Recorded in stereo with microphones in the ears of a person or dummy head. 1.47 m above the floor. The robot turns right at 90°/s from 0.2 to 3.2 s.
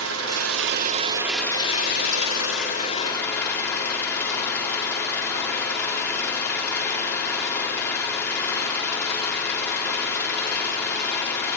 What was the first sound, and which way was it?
An engine running, 105° right.